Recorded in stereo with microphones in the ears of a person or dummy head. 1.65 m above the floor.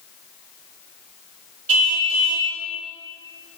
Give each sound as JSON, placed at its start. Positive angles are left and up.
{"t": 1.7, "sound": "a car horn", "side_deg": -75, "distance_m": 4.0}